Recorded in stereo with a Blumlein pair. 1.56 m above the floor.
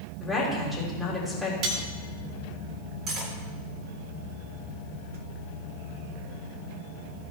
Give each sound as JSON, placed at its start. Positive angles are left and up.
{"t": 0.2, "sound": "a woman speaking", "azimuth_deg": 5, "distance_m": 4.0}
{"t": 1.6, "sound": "cutlery clinking", "azimuth_deg": -35, "distance_m": 1.9}
{"t": 3.1, "sound": "cutlery clinking", "azimuth_deg": -30, "distance_m": 2.0}